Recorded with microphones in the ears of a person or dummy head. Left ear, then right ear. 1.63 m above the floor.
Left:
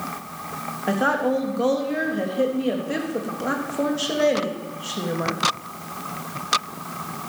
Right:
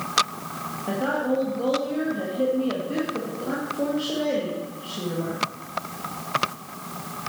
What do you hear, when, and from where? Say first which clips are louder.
0.9 s a woman speaking: left 4 dB; 60° left (ahead or behind), 3 m